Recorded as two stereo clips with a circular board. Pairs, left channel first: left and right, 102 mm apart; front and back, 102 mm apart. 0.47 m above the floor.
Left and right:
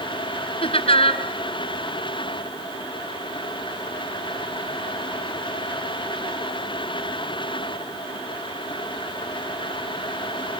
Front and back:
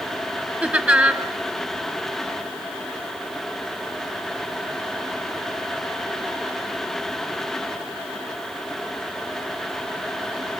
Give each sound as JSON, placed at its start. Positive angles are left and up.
{"t": 0.6, "sound": "laughter", "azimuth_deg": 100, "distance_m": 3.0}